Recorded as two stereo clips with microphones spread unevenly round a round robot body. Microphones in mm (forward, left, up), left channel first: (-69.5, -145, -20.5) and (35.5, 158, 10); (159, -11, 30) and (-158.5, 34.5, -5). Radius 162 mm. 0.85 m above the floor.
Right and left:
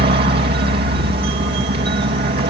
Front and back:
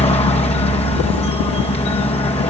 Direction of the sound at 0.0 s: 50° left.